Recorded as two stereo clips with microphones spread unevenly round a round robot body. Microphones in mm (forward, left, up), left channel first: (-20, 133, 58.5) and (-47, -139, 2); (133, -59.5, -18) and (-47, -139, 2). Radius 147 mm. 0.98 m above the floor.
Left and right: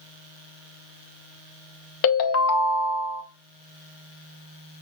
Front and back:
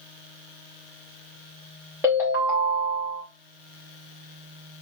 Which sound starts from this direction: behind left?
A ringtone, at 2.0 s.